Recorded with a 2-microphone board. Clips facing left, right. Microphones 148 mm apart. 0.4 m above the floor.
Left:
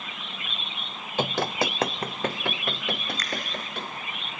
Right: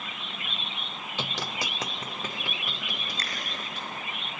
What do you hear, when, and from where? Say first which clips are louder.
1.2 s running footsteps: left 10 dB; 55° left (ahead or behind), 0.6 m; by 3.9 s 65° left (ahead or behind), 3.5 m
3.2 s a finger snap: left 5 dB; 30° right (ahead or behind), 3.5 m